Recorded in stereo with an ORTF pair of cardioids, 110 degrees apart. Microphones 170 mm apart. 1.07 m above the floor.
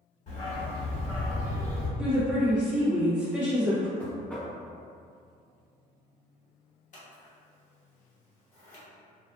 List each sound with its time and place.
0.3 s a dog barking: 45° left, 1.3 m; by 1.9 s 5° left, 0.8 m
2.0 s a woman speaking: 5° right, 0.5 m
4.0 s knocking: 10° left, 0.7 m
6.9 s scissors: 45° left, 0.9 m